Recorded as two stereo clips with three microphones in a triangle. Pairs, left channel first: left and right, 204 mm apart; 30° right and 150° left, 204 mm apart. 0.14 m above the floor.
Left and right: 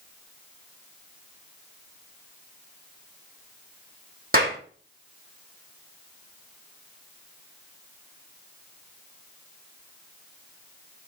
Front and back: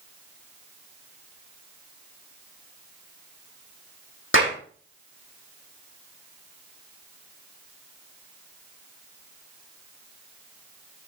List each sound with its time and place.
4.3 s a clap: 45° right, 5.5 m